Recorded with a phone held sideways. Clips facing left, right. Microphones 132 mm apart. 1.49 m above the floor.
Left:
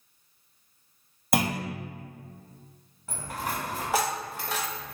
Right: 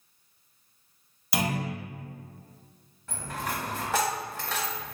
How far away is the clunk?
About 0.6 m.